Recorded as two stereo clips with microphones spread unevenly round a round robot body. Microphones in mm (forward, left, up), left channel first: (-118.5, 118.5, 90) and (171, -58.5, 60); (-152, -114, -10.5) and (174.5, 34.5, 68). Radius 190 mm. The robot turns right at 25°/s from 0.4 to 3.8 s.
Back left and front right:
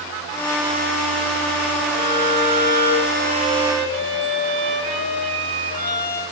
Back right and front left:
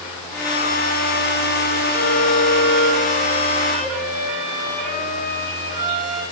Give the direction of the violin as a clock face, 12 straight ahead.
3 o'clock.